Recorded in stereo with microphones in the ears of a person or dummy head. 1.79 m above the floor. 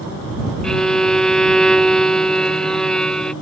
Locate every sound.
0.6 s a violin: centre (ahead or behind)